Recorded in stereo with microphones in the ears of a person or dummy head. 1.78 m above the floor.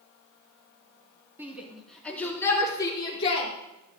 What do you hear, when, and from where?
1.4 s a shout: 5° right (ahead or behind), 3.5 m; by 3.5 s 35° left (ahead or behind), 5 m